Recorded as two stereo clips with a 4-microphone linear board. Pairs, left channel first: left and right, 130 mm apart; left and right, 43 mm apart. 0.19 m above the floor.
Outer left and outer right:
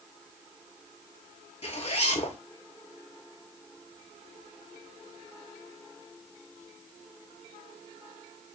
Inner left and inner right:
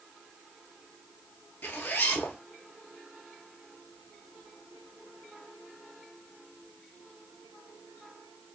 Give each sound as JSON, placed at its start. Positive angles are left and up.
{"t": 1.6, "sound": "a zipper", "side_deg": 55, "distance_m": 0.7}